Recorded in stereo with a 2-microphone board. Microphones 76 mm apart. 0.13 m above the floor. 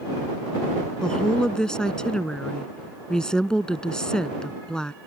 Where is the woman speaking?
10° left (ahead or behind).